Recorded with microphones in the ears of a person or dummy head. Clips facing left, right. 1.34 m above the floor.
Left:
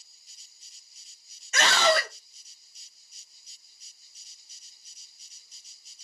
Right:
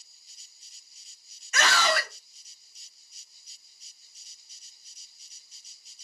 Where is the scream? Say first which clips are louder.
Left 3 dB; 25° left (ahead or behind), 0.6 m.